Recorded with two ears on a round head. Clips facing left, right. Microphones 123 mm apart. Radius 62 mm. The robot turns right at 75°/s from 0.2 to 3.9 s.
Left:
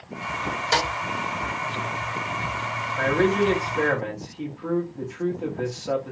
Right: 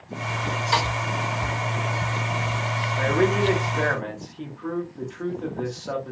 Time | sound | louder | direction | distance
0.7 | a snare drum | even | 55° left (ahead or behind) | 2 m
3.0 | a man speaking | left 1 dB | 25° right (ahead or behind) | 0.9 m